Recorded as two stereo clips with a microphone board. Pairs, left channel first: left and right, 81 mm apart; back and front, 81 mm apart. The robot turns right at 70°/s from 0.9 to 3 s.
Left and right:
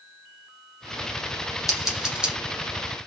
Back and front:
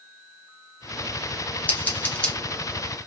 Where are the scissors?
175° left, 1.3 m; by 2.3 s 135° right, 1.3 m.